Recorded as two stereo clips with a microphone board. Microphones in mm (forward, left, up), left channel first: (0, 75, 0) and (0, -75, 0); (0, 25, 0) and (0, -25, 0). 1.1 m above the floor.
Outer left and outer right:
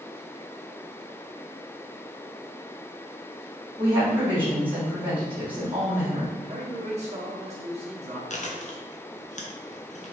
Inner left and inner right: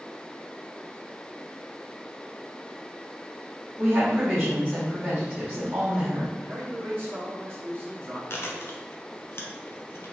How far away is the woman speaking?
About 2.0 m.